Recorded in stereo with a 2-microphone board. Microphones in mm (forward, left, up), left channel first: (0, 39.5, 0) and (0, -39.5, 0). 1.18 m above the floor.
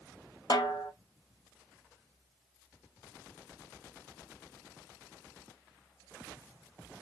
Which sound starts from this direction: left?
A snare drum, at 0.5 s.